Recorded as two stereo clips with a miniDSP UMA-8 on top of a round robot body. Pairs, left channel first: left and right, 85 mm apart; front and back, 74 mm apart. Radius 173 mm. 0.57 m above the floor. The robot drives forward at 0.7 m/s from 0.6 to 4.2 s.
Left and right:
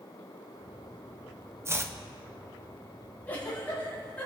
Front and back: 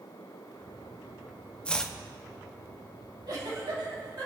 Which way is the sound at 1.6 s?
65° right.